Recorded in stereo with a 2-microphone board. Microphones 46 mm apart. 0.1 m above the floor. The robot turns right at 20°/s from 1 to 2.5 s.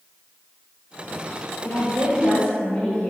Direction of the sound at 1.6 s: 50° left (ahead or behind).